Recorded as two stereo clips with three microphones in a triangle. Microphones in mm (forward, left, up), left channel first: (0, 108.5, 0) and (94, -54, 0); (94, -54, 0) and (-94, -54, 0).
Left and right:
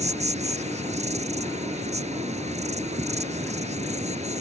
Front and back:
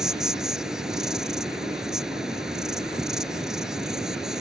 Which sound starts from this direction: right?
An insect, at 0.0 s.